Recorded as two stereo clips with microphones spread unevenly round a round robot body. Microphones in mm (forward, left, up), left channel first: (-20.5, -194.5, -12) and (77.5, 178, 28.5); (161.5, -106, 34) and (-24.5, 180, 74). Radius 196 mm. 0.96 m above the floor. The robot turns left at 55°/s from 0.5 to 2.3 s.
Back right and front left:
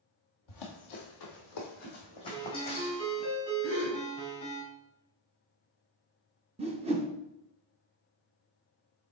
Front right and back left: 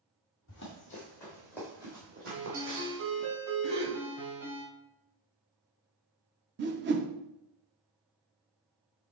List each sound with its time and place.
0.5 s running footsteps: 120° right, 1.7 m; by 3.3 s 175° right, 2.5 m
2.3 s a ringtone: straight behind, 3.5 m
3.6 s a gasp: 135° left, 2 m
6.6 s a whoosh: 145° left, 0.7 m